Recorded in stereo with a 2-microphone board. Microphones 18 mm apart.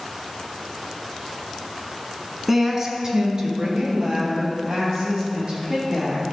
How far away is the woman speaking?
About 1.3 m.